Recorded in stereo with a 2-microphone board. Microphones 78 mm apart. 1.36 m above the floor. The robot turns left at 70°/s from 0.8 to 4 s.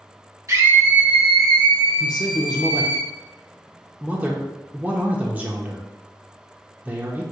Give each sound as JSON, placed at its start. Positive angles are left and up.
{"t": 0.5, "sound": "a scream", "azimuth_deg": -140, "distance_m": 1.3}
{"t": 2.0, "sound": "a man speaking", "side_deg": 50, "distance_m": 0.7}